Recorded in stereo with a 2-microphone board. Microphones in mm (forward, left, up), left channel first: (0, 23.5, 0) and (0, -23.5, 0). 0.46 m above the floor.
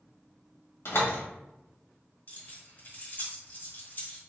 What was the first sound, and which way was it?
A door slam, 70° left (ahead or behind).